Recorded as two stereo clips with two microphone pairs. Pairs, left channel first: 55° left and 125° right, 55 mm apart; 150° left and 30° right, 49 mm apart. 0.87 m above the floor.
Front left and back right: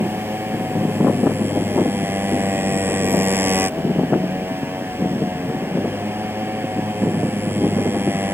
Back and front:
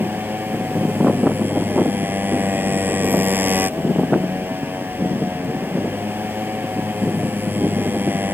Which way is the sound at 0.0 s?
80° right.